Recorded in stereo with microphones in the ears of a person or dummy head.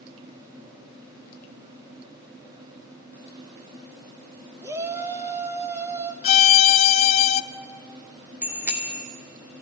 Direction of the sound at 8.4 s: 10° right (ahead or behind).